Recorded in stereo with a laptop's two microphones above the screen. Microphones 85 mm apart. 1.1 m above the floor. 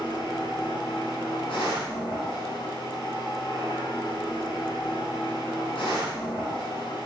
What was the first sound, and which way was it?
A machine running, 85° left.